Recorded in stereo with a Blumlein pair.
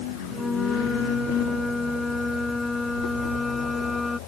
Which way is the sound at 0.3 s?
10° left.